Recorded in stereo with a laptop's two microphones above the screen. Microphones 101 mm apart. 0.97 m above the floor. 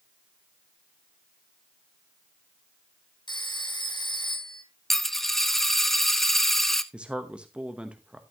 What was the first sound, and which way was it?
A phone ringing, 50° left (ahead or behind).